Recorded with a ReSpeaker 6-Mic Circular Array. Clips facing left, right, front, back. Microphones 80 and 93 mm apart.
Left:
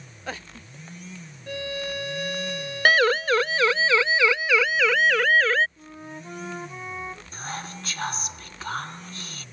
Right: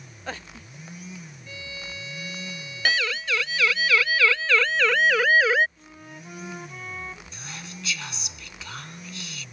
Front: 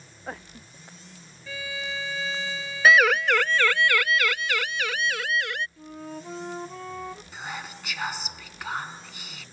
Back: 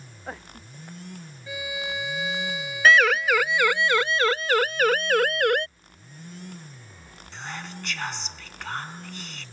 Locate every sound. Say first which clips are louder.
1.5 s a violin: left 11 dB, back 2 dB; 105° left
2.9 s a siren: left 7 dB, even; 80° left; by 5.7 s 170° right
5.8 s a flute: left 4 dB, front 12 dB; 20° left
7.3 s whispering: left 6 dB, even; 80° left